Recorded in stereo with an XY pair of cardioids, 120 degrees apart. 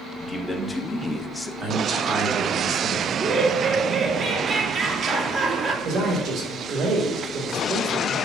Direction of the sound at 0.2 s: 15° left.